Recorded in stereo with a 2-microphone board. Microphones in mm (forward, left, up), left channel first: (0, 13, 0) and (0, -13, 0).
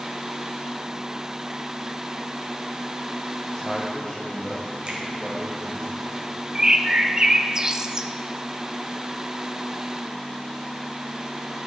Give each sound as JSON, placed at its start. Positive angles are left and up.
{"t": 3.5, "sound": "a man speaking", "side_deg": 20, "distance_m": 3.0}
{"t": 4.9, "sound": "a finger snap", "side_deg": -35, "distance_m": 2.0}
{"t": 6.5, "sound": "a bird", "side_deg": -25, "distance_m": 0.6}